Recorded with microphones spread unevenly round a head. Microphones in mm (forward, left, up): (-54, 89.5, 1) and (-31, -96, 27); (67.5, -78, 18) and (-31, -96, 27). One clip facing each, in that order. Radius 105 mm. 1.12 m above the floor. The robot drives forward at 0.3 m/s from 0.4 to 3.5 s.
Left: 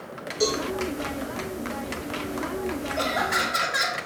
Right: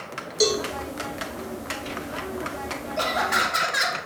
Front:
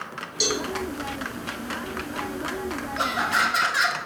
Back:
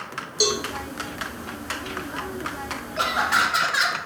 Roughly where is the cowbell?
Behind right.